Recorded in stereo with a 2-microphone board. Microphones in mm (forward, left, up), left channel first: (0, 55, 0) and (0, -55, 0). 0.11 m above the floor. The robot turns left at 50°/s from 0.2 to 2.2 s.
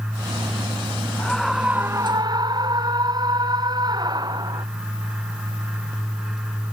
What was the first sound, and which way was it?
A scream, 15° left.